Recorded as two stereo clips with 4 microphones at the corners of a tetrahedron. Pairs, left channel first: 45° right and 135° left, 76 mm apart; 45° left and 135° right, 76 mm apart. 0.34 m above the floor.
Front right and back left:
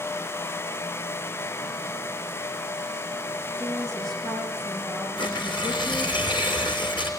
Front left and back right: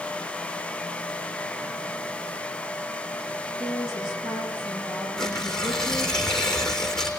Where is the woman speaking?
135° right, 8 m.